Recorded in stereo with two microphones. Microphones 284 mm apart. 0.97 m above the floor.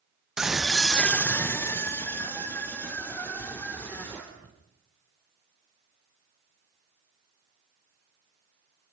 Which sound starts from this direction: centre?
A scream, at 0.4 s.